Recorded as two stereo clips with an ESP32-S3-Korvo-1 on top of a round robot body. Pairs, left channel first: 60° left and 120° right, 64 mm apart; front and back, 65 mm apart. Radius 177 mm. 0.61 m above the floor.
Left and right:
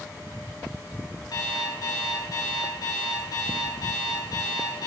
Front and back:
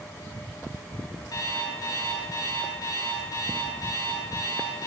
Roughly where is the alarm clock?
Ahead left.